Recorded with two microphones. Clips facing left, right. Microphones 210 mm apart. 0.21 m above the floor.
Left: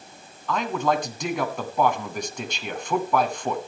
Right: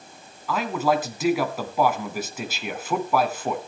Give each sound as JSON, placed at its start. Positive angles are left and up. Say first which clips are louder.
{"t": 0.5, "sound": "a man speaking", "louder": "right 1 dB", "side_deg": -5, "distance_m": 1.9}